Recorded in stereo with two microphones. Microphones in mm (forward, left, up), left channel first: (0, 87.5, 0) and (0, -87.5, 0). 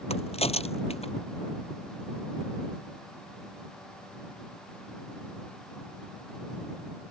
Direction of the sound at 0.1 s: 35° left (ahead or behind).